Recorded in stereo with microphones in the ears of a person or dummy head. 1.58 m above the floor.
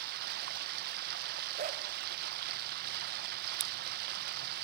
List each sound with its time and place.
0.0 s running water: 50° right (ahead or behind), 1.1 m
1.6 s a dog barking: 40° right (ahead or behind), 2 m
3.6 s scissors: 35° right (ahead or behind), 0.7 m